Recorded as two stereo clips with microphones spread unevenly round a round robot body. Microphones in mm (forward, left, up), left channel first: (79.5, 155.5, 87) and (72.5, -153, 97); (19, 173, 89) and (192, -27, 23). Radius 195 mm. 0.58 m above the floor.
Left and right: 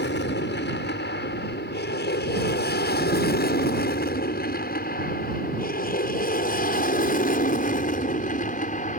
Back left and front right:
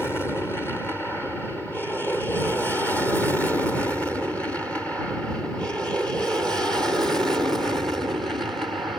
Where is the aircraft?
40° left; by 9.0 s 30° left.